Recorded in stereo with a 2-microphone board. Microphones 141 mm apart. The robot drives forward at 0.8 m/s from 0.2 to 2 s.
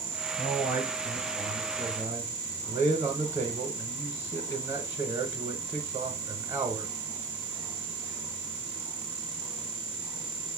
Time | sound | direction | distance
0.4 | a man speaking | 5° right (ahead or behind) | 2.0 m